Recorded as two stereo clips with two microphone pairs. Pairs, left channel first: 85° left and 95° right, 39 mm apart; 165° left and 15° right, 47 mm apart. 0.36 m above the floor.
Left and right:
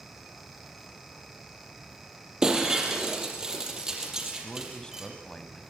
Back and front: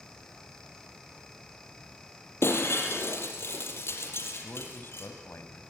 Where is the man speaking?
150° left, 3 m.